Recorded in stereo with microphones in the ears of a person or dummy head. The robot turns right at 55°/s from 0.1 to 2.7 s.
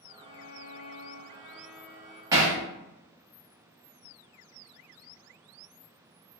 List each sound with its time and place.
0.2 s a violin: 105° left, 1.0 m; by 2.2 s 145° right, 1.0 m
2.3 s hammering: 15° right (ahead or behind), 0.5 m; by 2.6 s 25° right (ahead or behind), 0.5 m